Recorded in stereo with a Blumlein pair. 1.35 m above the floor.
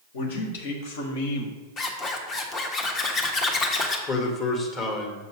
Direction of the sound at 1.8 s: 30° left.